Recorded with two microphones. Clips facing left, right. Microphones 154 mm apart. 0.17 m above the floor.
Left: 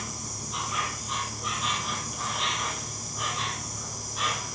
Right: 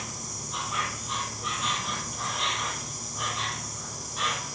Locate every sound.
0.0 s an insect: centre (ahead or behind), 3 m